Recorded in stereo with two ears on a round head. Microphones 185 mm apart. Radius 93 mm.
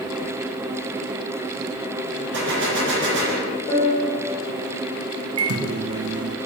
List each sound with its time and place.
2.3 s a gunshot: 55° right (ahead or behind), 2 m
3.7 s a piano: 25° left (ahead or behind), 3 m
5.4 s a microwave: 70° right (ahead or behind), 0.8 m